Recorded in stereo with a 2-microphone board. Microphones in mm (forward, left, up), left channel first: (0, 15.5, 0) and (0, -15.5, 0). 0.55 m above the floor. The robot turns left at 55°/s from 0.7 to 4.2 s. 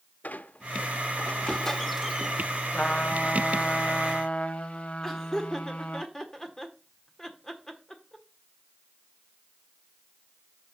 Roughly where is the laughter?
Centre.